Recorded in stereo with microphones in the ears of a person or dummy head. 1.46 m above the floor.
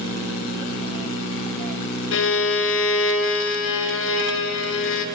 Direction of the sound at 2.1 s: 65° left (ahead or behind).